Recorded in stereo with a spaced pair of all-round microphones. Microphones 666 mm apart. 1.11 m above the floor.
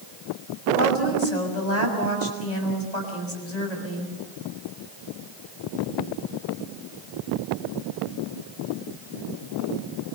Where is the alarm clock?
No alarm clock in this recording.